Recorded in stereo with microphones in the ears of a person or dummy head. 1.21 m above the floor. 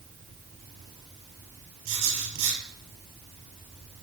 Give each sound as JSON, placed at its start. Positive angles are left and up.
{"t": 1.9, "sound": "writing", "side_deg": -70, "distance_m": 5.0}